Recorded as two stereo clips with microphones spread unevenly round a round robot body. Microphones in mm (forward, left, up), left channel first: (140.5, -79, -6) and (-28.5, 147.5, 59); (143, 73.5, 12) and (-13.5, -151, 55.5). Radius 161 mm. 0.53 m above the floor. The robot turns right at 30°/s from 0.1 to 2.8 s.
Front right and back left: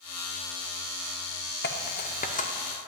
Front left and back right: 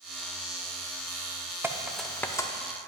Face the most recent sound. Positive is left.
turn(degrees=0)